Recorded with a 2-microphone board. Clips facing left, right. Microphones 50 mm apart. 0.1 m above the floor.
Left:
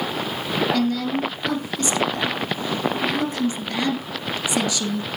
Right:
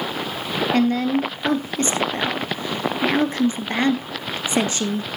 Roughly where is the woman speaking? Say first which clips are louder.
Right 3 dB; right.